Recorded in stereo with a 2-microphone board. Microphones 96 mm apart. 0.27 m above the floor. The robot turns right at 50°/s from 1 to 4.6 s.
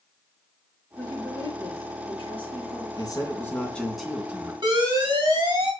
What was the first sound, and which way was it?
A woman speaking, 20° left.